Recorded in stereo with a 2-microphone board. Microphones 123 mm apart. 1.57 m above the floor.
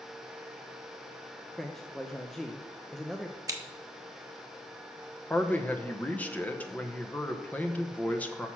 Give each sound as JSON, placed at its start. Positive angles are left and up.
{"t": 1.6, "sound": "a man speaking", "side_deg": 5, "distance_m": 0.6}
{"t": 3.5, "sound": "scissors", "side_deg": -30, "distance_m": 1.0}
{"t": 5.3, "sound": "a man speaking", "side_deg": 10, "distance_m": 0.8}